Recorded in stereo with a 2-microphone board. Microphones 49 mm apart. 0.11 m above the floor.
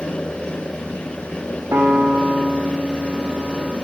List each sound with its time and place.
1.7 s a piano: 70° right (ahead or behind), 3 m